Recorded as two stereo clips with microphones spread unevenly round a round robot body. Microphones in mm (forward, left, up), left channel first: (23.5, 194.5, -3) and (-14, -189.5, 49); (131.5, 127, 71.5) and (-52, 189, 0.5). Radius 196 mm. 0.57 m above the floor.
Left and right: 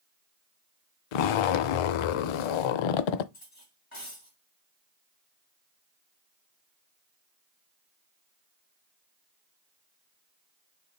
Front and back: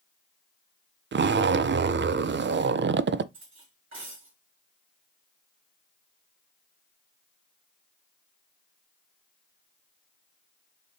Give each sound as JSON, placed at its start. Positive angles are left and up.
{"t": 1.1, "sound": "a zipper", "azimuth_deg": 110, "distance_m": 0.5}
{"t": 3.3, "sound": "cutlery clinking", "azimuth_deg": 155, "distance_m": 4.0}